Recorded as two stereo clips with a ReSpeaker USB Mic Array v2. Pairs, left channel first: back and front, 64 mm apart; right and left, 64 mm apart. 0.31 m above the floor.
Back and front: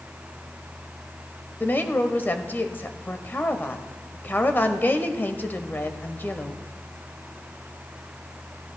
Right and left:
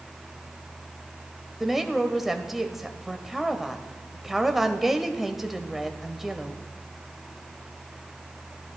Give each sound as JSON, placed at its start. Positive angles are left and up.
{"t": 1.6, "sound": "a woman speaking", "azimuth_deg": 170, "distance_m": 0.9}